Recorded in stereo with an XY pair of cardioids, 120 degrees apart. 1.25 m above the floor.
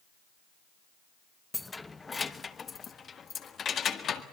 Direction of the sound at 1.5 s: 10° left.